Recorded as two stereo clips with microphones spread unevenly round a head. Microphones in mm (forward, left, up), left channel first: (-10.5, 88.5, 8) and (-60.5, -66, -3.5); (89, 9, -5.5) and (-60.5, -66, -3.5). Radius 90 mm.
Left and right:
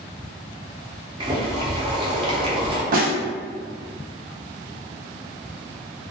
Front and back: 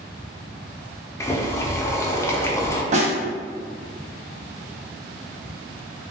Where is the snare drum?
115° right, 0.5 m.